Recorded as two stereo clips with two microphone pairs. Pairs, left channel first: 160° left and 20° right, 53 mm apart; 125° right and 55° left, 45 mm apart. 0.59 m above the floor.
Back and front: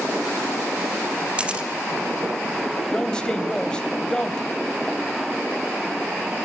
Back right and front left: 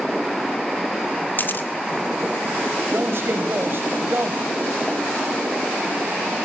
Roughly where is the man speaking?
Left.